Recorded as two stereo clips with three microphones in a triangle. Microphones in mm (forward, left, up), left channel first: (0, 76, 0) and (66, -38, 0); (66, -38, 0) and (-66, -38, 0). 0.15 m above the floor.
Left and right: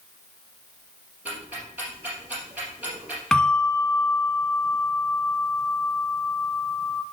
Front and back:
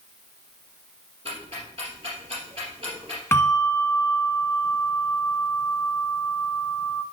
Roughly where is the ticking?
Behind right.